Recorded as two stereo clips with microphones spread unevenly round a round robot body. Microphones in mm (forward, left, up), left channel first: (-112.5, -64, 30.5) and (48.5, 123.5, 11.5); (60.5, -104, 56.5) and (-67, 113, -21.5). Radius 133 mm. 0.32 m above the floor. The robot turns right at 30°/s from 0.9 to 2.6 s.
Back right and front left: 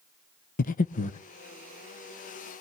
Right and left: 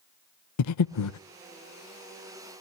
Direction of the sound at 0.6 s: 75° right.